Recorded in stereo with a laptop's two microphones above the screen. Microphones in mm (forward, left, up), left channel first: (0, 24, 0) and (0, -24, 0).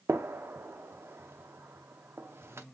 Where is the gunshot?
55° right (ahead or behind), 0.6 m.